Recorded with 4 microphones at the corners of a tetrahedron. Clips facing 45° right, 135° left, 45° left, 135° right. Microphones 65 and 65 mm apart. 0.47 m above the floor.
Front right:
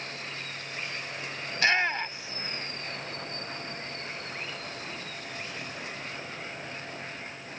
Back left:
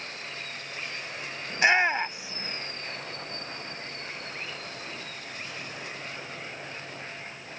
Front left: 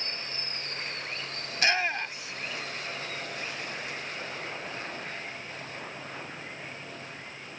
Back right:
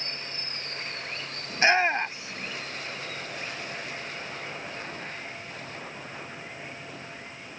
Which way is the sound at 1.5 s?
170° right.